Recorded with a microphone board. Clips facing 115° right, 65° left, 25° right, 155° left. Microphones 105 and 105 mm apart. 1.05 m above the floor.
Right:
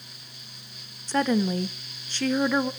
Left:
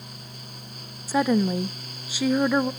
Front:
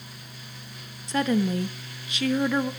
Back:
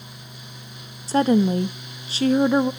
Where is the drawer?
I don't hear a drawer.